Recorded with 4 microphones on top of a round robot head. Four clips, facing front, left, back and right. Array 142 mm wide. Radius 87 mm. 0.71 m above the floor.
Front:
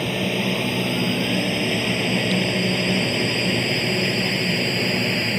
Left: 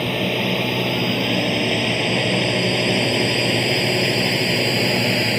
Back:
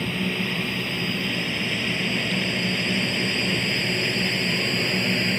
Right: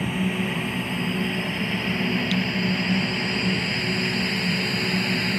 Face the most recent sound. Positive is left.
turn(degrees=95)